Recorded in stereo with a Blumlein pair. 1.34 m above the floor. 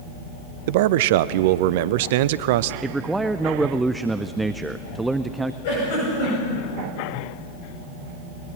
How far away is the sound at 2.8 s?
About 0.5 m.